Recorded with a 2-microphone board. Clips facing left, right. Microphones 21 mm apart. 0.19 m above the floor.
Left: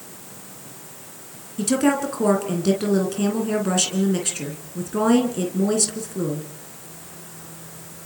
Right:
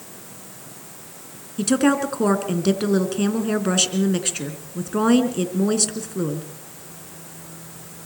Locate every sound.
1.6 s a woman speaking: 15° right (ahead or behind), 2.5 m